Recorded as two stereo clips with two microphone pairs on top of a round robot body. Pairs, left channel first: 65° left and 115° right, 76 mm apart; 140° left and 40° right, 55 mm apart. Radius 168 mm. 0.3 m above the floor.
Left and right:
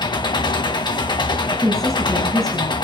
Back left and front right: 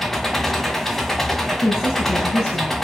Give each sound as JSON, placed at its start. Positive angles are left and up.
{"t": 0.0, "sound": "an engine running", "azimuth_deg": 55, "distance_m": 2.0}
{"t": 1.6, "sound": "a woman speaking", "azimuth_deg": 150, "distance_m": 6.0}